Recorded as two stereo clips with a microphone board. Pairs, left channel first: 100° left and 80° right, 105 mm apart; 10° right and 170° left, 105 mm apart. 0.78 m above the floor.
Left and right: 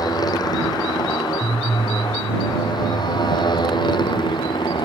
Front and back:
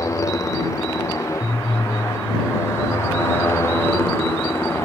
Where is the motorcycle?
50° left; by 4.8 s 60° left.